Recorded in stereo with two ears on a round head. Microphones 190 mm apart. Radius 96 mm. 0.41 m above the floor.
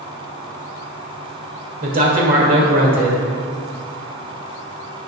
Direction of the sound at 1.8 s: 45° right (ahead or behind).